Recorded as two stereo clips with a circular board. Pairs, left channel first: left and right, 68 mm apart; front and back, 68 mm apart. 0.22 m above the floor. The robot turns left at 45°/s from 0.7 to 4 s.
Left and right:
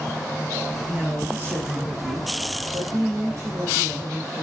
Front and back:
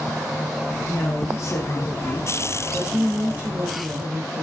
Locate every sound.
0.9 s a woman speaking: 20° right, 3.5 m; by 4.4 s 160° right, 3.5 m